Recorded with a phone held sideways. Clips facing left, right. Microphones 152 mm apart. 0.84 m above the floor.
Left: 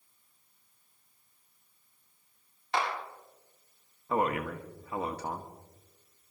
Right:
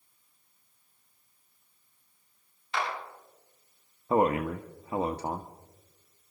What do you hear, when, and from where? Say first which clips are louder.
2.7 s a clap: left 2 dB; 65° left (ahead or behind), 8.5 m
4.1 s a man speaking: right 5 dB; 25° right (ahead or behind), 0.9 m